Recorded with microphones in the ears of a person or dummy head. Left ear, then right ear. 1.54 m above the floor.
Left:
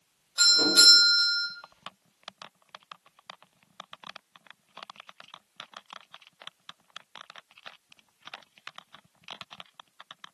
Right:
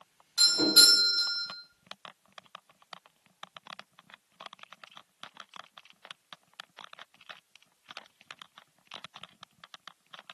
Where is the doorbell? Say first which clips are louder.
Left 2 dB; 35° right (ahead or behind), 1.6 m.